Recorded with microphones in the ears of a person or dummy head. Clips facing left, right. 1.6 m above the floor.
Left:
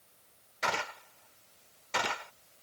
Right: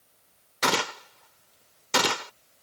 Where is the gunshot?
60° right (ahead or behind).